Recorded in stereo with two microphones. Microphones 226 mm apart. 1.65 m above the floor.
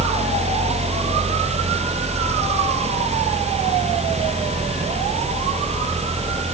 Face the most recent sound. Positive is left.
No sound to turn to.